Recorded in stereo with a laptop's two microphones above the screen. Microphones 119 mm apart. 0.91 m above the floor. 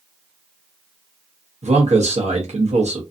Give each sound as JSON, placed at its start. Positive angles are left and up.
{"t": 1.6, "sound": "a man speaking", "side_deg": -75, "distance_m": 0.9}